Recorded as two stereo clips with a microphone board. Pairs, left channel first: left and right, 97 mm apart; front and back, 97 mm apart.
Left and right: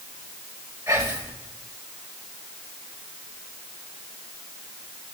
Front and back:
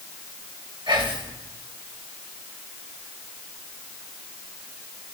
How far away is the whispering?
About 1.3 m.